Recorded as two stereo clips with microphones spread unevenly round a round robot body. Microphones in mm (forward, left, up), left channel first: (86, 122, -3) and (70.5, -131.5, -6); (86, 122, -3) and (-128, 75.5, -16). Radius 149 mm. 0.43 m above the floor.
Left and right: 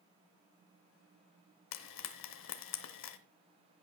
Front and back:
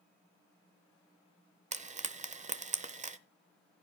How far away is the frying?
About 0.7 m.